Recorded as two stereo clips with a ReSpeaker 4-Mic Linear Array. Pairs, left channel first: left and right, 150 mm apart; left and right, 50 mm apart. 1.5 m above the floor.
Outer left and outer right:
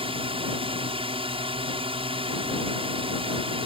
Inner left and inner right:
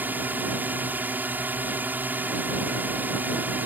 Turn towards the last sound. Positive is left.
turn(degrees=-40)  # may be behind; listen again after turning